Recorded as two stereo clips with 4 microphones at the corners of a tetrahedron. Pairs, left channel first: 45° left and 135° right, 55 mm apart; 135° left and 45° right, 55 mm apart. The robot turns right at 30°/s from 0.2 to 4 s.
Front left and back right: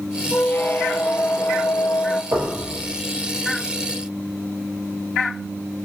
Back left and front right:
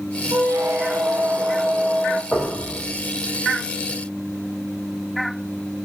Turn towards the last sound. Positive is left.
turn(degrees=-90)